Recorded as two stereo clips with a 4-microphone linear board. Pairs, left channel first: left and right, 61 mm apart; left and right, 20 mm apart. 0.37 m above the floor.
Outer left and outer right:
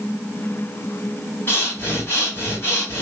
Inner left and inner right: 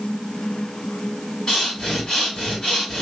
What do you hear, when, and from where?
1.5 s breathing: 35° left (ahead or behind), 1.9 m